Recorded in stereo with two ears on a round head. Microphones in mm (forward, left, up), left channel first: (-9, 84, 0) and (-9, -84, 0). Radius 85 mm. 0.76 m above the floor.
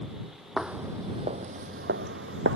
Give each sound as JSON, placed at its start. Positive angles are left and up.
{"t": 0.6, "sound": "footsteps", "side_deg": 0}